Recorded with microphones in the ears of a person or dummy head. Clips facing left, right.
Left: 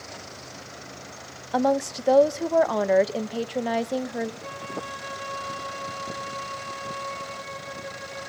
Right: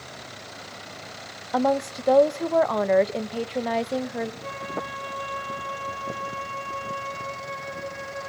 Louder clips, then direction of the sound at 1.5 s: Even; 5° left (ahead or behind).